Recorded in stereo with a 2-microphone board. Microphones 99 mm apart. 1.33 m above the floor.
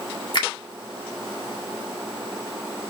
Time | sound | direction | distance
0.3 | a finger snap | 50° left (ahead or behind) | 1.9 m